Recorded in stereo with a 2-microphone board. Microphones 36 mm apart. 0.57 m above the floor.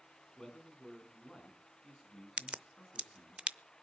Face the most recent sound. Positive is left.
turn(degrees=-30)  # may be behind; listen again after turning